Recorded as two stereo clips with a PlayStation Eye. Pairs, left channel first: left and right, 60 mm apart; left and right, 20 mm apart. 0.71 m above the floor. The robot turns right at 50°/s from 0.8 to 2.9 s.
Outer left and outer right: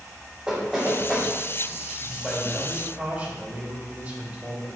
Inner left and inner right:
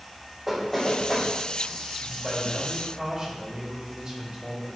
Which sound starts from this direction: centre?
Knocking, at 0.5 s.